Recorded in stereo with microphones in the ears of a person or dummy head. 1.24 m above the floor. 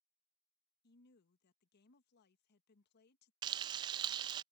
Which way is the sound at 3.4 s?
25° right (ahead or behind).